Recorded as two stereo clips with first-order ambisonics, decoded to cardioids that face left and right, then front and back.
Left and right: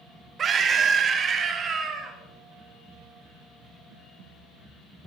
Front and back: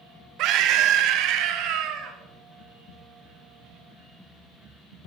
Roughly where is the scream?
Behind right.